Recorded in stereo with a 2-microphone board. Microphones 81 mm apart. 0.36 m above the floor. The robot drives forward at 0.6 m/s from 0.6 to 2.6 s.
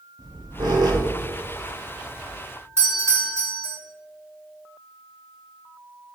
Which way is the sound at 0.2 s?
65° right (ahead or behind).